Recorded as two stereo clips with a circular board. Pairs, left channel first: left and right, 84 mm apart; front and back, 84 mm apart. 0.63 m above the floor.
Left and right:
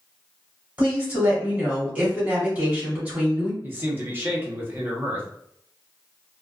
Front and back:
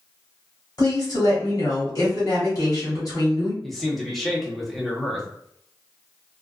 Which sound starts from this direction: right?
A man speaking, at 3.6 s.